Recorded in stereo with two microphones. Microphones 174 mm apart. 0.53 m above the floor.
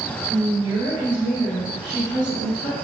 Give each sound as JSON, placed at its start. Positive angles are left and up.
{"t": 0.2, "sound": "a woman speaking", "side_deg": 30, "distance_m": 1.3}